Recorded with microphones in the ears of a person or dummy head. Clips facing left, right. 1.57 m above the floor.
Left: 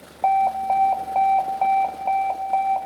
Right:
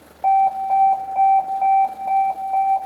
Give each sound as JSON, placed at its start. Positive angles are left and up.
{"t": 0.2, "sound": "an alarm", "side_deg": 55, "distance_m": 0.8}